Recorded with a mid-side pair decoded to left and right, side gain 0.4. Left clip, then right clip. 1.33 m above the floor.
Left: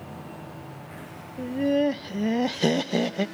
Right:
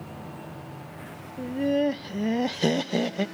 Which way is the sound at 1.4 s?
10° left.